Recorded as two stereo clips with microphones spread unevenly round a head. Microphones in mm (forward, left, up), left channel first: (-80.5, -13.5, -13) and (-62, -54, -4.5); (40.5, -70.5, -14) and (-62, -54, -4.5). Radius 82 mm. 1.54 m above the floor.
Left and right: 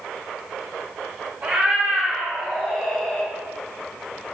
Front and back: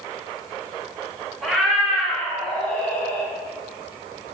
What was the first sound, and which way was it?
A cat meowing, 105° right.